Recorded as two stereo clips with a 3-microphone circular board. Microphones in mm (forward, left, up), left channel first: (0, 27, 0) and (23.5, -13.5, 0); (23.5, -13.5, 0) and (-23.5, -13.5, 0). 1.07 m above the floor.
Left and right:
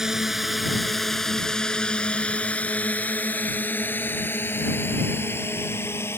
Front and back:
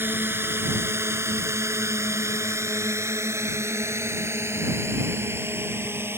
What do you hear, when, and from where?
0.0 s a drone: 140° right; by 6.2 s 145° left